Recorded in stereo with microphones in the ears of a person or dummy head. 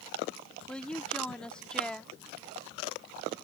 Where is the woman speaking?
5° left (ahead or behind).